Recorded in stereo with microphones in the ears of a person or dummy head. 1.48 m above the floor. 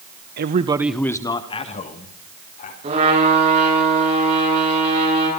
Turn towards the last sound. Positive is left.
turn(degrees=-35)  # may be behind; listen again after turning